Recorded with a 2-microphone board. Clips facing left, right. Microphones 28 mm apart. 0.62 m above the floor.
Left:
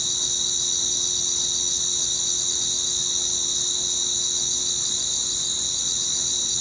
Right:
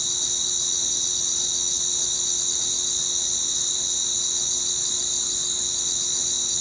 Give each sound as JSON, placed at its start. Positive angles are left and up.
{"t": 0.0, "sound": "an insect", "side_deg": 15}